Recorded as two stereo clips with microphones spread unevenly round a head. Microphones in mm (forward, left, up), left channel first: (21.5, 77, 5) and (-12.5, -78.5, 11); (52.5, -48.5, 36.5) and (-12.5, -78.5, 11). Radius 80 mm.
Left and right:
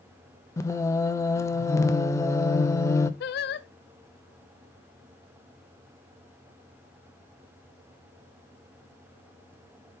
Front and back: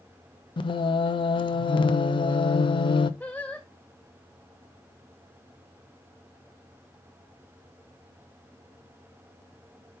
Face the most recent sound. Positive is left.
turn(degrees=85)